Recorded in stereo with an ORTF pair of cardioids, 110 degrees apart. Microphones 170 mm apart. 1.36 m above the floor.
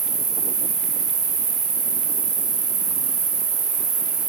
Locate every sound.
0.0 s an insect: 60° right, 0.8 m